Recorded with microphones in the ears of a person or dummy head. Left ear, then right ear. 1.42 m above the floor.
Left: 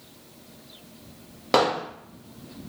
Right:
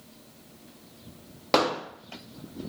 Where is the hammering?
10° right (ahead or behind), 1.0 m.